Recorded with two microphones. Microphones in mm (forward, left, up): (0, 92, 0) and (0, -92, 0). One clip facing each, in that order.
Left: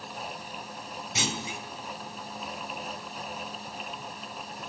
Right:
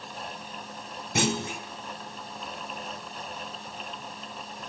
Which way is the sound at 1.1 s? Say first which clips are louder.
Right 7 dB; 55° right (ahead or behind).